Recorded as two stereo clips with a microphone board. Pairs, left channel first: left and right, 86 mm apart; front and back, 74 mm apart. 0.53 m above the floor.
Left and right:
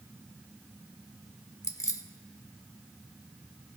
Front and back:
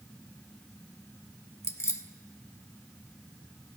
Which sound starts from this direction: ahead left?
Keys jangling, at 1.6 s.